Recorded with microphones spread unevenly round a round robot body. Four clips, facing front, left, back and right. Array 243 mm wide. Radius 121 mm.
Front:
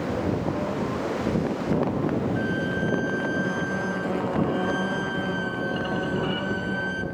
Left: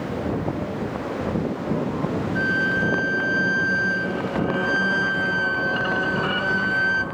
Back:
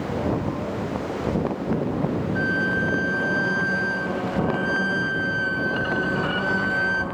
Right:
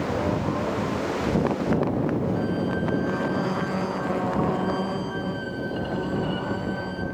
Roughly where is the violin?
Left.